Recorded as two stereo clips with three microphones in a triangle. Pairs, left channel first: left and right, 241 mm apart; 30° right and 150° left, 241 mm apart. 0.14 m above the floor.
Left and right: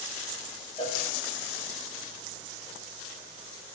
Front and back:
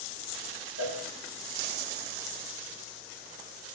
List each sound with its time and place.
0.8 s a cowbell: 160° left, 8.5 m